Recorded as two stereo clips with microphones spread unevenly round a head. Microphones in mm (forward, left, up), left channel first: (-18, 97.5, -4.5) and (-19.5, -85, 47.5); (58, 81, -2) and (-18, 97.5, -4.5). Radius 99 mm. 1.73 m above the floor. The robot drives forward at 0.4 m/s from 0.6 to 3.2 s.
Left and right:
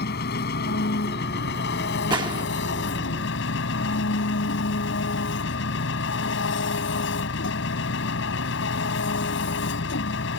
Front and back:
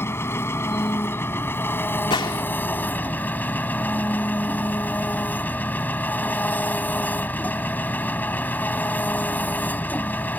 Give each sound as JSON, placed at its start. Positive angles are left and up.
{"t": 0.0, "sound": "an engine running", "azimuth_deg": 45}
{"t": 2.1, "sound": "a gunshot", "azimuth_deg": -25}